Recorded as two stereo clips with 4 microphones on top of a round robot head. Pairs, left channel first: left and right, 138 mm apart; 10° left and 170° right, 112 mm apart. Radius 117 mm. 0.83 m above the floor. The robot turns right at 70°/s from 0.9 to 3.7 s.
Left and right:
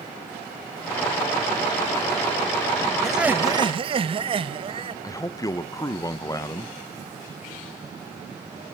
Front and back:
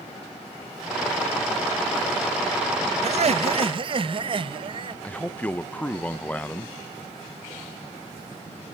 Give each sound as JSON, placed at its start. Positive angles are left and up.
{"t": 3.0, "sound": "laughter", "azimuth_deg": 175, "distance_m": 0.9}
{"t": 5.0, "sound": "a man speaking", "azimuth_deg": 70, "distance_m": 0.8}